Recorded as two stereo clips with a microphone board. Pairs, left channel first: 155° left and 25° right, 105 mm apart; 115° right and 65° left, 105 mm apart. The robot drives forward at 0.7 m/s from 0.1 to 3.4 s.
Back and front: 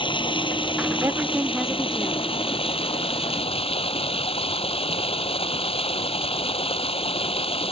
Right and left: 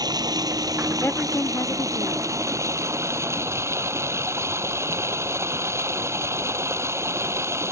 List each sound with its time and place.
0.0 s running water: 120° left; by 7.7 s 130° left
1.0 s a woman speaking: 55° right; by 2.4 s 145° right